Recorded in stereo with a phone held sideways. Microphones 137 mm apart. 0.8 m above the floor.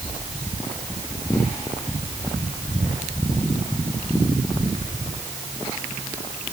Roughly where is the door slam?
I don't hear a door slam.